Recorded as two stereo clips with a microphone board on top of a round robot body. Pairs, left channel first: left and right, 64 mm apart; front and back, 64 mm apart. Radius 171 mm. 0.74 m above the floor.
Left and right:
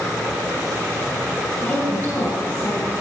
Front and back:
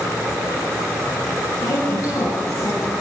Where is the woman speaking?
35° left, 5.5 m; by 2.9 s 40° left, 7 m.